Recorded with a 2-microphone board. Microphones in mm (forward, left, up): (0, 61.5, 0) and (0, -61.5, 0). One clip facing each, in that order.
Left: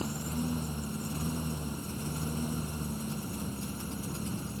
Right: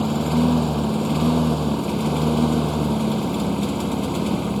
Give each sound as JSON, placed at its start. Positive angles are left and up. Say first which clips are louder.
{"t": 0.0, "sound": "a lawn mower", "louder": "right 15 dB", "side_deg": -85}